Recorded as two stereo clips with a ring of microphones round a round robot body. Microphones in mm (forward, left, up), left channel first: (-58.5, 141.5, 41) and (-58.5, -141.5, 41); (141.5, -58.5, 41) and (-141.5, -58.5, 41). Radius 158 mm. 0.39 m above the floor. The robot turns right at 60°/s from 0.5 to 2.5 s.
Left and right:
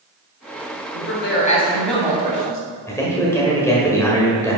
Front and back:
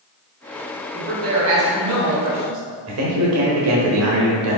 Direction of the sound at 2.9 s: 170° left.